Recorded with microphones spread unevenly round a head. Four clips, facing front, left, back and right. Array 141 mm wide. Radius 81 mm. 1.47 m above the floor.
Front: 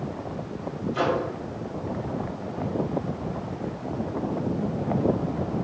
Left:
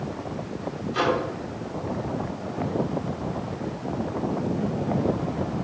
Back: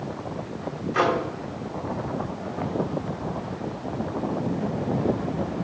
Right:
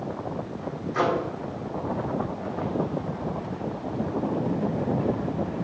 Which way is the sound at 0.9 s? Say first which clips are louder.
Even, back 3 dB; 170° left.